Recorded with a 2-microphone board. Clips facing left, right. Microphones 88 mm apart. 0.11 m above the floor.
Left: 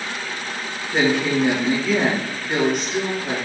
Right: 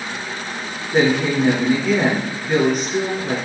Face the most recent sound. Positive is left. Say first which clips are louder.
# right 2 dB
turn(degrees=-5)  # may be behind; listen again after turning